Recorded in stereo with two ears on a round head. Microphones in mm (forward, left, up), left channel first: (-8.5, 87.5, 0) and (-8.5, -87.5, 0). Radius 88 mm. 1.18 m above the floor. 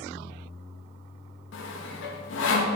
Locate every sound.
1.5 s sawing: 70° left (ahead or behind), 0.7 m